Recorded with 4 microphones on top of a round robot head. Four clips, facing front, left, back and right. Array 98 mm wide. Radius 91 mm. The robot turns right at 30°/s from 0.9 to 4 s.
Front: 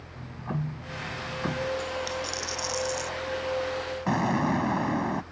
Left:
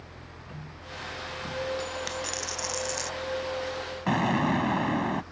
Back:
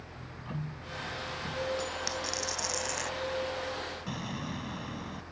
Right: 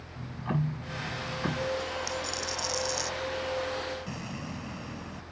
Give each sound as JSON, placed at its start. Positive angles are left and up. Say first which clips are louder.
{"t": 0.2, "sound": "ticking", "louder": "right 15 dB, front 7 dB", "azimuth_deg": -50}
{"t": 1.8, "sound": "a dropped coin", "louder": "even, front 4 dB", "azimuth_deg": 120}
{"t": 4.1, "sound": "an explosion", "louder": "left 14 dB, front 13 dB", "azimuth_deg": 45}